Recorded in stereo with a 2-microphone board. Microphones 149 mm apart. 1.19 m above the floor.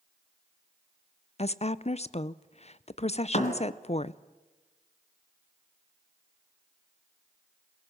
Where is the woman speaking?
45° left (ahead or behind), 0.6 m.